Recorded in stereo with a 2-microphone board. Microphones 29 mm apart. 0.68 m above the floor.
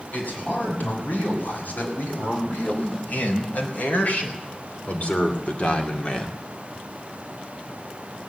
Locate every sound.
0.1 s a man speaking: 80° left, 6.5 m; by 6.4 s 35° left (ahead or behind), 2.0 m